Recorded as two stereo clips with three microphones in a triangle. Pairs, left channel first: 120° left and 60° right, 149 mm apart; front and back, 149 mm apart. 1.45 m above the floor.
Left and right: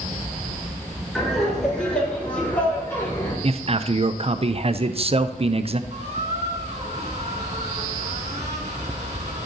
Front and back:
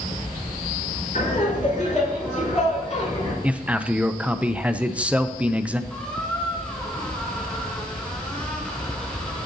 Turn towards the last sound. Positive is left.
turn(degrees=-80)